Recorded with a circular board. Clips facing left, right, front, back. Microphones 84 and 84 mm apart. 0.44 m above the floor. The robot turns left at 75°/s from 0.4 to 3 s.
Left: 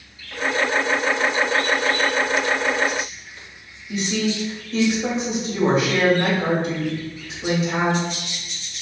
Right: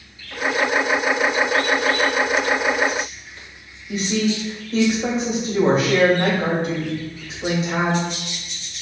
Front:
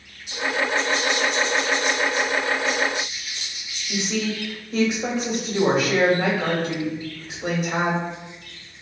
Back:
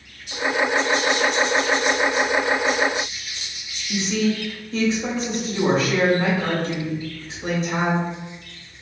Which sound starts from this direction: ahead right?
A woman speaking, at 3.9 s.